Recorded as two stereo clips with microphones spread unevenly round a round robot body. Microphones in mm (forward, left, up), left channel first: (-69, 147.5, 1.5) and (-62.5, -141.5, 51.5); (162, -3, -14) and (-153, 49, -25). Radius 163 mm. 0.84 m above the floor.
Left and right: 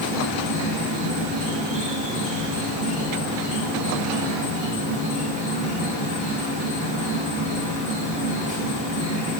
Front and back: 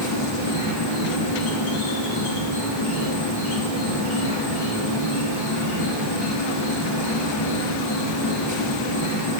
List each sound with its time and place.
0.0 s an insect: 20° right, 1.4 m